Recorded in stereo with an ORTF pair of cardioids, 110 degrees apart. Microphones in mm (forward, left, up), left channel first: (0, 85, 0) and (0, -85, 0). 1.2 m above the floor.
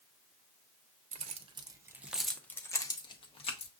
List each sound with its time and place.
1.1 s keys jangling: 45° right, 0.8 m; by 3.7 s 40° left, 1.2 m